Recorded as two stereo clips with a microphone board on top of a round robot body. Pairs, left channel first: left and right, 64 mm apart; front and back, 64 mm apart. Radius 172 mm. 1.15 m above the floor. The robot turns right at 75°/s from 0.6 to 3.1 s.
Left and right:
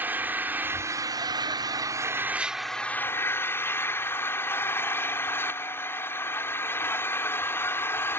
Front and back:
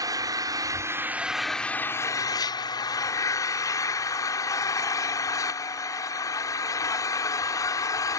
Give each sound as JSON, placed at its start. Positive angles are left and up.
{"t": 0.0, "sound": "an engine running", "azimuth_deg": -155}